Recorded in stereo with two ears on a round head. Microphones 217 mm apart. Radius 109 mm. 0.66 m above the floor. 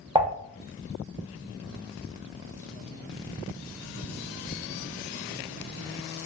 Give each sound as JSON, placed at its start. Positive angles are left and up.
{"t": 0.1, "sound": "dishes clattering", "side_deg": -20, "distance_m": 0.5}